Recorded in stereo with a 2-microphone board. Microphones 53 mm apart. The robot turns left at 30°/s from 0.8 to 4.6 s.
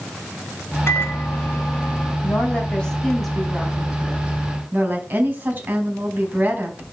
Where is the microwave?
50° left, 3.5 m; by 2.1 s 15° left, 3.5 m.